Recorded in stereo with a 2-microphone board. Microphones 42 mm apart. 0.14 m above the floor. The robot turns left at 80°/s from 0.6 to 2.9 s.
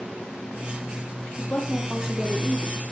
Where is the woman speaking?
50° left, 5 m; by 2.8 s 65° right, 5 m.